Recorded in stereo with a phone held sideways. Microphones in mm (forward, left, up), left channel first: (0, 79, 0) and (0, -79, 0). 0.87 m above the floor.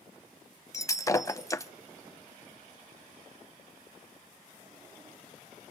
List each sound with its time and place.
0.7 s breaking glass: 20° left (ahead or behind), 0.8 m